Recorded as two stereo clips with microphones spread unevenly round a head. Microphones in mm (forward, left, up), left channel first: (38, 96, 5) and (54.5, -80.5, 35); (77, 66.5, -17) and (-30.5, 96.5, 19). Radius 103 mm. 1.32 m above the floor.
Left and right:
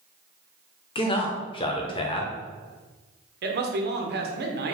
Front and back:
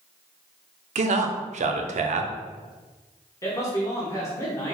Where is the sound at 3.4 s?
65° right, 0.8 m.